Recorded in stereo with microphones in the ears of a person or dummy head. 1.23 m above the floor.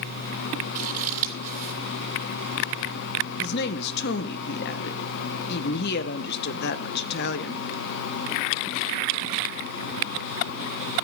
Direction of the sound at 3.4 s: 55° left (ahead or behind).